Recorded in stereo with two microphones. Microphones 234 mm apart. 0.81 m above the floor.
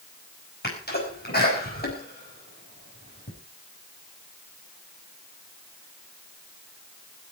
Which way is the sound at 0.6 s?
45° left (ahead or behind).